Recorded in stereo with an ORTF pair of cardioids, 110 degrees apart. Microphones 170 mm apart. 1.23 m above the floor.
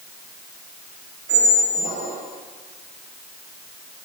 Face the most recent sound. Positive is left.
turn(degrees=-45)